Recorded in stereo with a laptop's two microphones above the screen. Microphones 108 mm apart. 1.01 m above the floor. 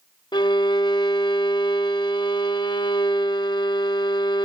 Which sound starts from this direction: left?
A violin, at 0.3 s.